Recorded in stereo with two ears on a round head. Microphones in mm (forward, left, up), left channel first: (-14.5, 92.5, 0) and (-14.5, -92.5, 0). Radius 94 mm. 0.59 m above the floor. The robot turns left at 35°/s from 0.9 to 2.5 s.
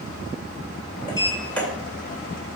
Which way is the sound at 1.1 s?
20° left (ahead or behind).